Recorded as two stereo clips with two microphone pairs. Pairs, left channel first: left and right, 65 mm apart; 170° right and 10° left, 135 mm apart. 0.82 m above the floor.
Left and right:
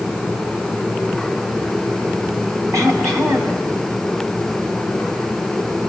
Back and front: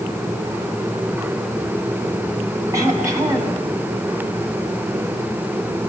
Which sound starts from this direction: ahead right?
Throat clearing, at 2.7 s.